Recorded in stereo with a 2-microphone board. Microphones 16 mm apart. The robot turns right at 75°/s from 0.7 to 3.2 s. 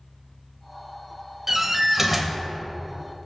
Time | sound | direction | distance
1.5 | a door slam | 20° right (ahead or behind) | 1.0 m